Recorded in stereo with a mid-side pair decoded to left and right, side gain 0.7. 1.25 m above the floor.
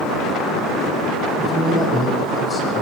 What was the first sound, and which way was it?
A man speaking, 15° left.